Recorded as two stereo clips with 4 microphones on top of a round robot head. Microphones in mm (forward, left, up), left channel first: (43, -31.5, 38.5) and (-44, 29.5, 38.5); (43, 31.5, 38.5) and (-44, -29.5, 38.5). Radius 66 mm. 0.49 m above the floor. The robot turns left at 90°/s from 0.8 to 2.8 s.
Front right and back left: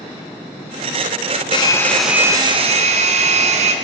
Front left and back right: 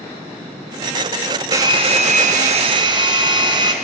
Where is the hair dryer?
80° right, 4 m; by 3.7 s 165° left, 4 m.